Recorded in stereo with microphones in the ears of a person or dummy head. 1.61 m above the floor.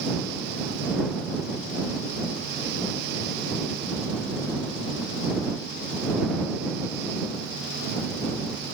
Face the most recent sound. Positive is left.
No sound to turn to.